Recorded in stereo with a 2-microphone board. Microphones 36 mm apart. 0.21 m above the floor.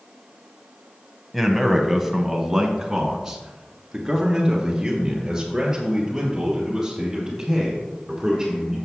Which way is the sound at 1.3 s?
Centre (ahead or behind).